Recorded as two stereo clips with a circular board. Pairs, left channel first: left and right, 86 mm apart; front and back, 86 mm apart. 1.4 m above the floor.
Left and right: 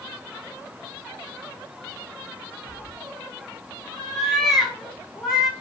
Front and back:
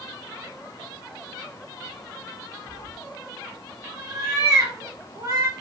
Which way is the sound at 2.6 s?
175° right.